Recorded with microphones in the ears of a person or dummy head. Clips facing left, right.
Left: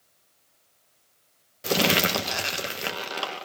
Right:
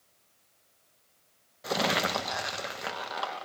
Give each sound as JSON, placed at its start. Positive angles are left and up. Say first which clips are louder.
{"t": 1.6, "sound": "crumpling", "louder": "left 5 dB", "side_deg": 35, "distance_m": 1.1}